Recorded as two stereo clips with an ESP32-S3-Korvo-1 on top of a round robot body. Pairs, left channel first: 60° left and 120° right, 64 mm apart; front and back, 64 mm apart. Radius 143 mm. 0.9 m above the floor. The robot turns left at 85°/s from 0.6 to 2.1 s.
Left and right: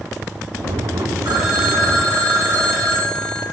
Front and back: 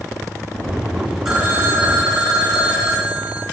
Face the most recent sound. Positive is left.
turn(degrees=-170)